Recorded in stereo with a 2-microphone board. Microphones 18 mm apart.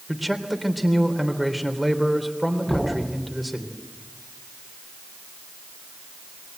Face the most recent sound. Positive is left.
turn(degrees=20)  # may be behind; listen again after turning